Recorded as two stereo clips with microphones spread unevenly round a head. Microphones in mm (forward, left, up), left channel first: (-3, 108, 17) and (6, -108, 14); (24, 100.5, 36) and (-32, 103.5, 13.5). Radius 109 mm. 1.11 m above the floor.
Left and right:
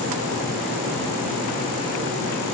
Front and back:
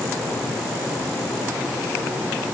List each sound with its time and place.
Only background noise.